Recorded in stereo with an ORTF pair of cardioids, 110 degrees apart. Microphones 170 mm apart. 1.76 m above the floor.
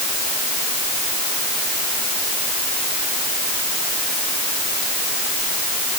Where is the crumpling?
No crumpling in this recording.